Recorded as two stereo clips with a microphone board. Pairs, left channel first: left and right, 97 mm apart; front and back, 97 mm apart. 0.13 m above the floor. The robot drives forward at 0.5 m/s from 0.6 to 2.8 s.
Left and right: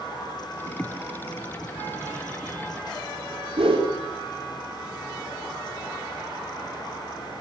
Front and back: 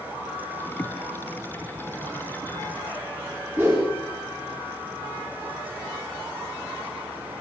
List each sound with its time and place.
3.6 s a whoosh: 115° right, 7.5 m